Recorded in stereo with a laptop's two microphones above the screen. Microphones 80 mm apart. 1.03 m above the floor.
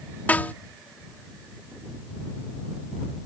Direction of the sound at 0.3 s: 20° left (ahead or behind).